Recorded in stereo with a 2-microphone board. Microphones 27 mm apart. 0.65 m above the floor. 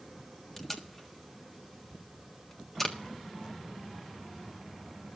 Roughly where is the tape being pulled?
Centre.